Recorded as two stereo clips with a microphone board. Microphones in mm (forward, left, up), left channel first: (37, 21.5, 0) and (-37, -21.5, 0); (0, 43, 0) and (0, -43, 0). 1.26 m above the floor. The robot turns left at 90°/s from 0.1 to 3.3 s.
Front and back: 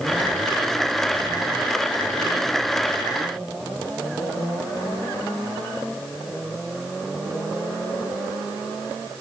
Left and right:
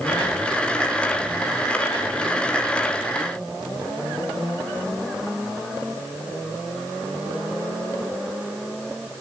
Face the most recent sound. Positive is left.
No sound to turn to.